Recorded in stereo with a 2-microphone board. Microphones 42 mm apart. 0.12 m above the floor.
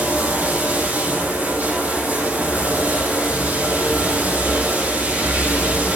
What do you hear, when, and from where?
0.0 s running water: 45° right (ahead or behind), 4 m